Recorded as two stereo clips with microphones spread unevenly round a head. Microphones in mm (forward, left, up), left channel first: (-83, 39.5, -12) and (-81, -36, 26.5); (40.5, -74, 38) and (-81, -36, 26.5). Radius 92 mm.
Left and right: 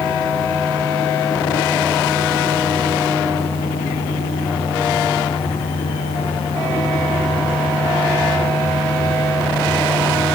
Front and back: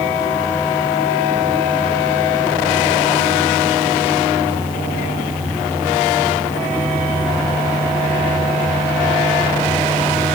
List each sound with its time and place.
Only background noise.